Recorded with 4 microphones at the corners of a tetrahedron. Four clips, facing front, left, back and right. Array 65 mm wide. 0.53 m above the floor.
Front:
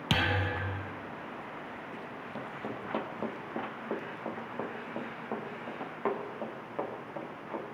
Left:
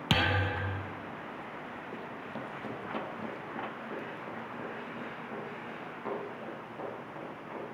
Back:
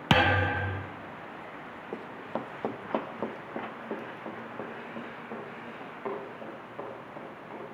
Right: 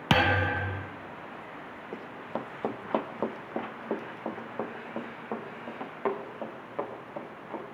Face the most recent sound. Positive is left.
turn(degrees=-50)